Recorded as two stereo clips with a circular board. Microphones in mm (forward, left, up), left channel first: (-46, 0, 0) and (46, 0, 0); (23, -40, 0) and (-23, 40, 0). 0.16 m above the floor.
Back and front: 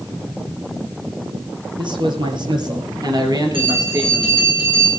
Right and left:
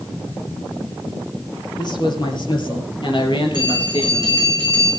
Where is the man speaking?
25° right, 4.5 m; by 4.3 s 55° right, 3.5 m.